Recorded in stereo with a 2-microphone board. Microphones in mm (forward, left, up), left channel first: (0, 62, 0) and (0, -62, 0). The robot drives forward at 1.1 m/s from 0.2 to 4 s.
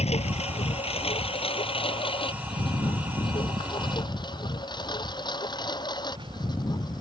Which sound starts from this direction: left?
A lawn mower, at 0.0 s.